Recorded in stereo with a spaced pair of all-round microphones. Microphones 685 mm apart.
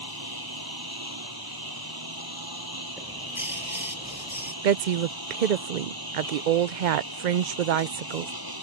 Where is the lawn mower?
30° right (ahead or behind).